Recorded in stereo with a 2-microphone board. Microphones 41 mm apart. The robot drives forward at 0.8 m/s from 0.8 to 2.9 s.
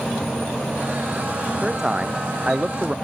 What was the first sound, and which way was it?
A man speaking, 15° right (ahead or behind).